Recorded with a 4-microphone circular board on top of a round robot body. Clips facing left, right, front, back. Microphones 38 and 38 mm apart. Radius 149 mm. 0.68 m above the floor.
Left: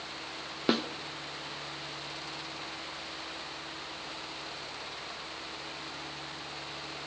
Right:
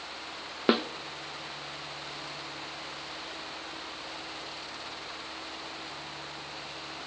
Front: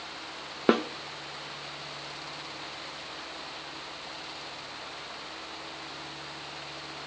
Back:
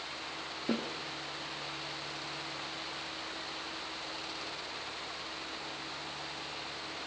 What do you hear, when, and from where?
0.7 s a snare drum: 20° right, 0.7 m